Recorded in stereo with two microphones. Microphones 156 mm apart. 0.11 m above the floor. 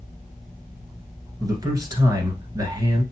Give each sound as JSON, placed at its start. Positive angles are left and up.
{"t": 1.4, "sound": "a man speaking", "side_deg": -25, "distance_m": 1.3}